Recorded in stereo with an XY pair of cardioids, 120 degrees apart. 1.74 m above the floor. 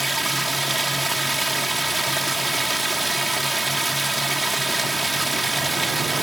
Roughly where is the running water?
Ahead.